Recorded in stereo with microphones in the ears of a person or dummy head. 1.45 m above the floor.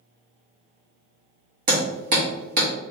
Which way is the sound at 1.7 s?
45° right (ahead or behind).